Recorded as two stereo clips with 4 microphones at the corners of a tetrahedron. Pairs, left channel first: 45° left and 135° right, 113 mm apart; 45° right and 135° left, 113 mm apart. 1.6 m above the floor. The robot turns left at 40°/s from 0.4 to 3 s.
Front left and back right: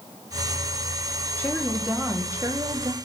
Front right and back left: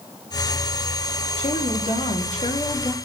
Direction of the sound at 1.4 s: 30° right.